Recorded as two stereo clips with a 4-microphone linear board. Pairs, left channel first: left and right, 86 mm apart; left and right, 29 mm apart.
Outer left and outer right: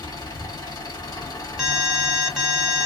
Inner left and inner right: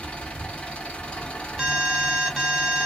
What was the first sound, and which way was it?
An engine running, 45° left (ahead or behind).